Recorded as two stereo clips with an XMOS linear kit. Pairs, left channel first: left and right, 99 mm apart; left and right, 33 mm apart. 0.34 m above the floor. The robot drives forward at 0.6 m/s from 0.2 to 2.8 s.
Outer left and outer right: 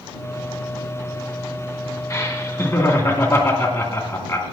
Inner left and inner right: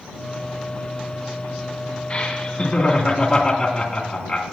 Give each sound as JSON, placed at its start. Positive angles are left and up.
{"t": 2.1, "sound": "laughter", "side_deg": 35, "distance_m": 2.5}